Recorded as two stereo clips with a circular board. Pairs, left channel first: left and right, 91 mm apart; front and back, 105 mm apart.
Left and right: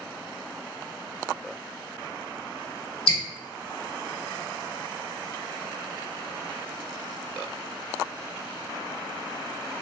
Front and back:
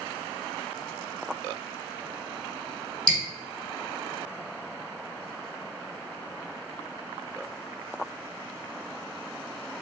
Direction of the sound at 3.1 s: 80° left.